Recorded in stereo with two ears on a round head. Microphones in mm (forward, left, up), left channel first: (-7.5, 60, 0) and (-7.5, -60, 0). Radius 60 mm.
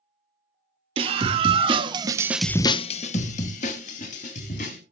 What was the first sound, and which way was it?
A scream, 45° right (ahead or behind).